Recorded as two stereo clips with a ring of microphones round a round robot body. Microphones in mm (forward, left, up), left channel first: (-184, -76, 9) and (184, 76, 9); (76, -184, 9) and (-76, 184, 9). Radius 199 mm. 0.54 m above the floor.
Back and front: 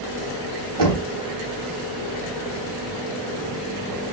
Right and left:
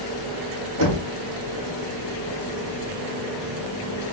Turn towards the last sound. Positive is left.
turn(degrees=65)